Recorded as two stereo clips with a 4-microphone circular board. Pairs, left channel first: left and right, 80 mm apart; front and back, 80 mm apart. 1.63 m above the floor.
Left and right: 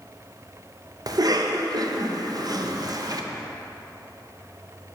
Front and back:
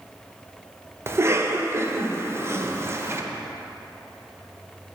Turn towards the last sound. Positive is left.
turn(degrees=-125)